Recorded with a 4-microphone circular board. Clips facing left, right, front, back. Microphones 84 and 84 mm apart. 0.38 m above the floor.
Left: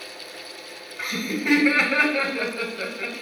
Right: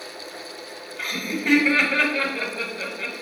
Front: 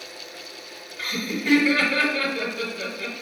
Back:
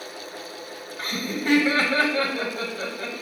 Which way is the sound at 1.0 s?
170° left.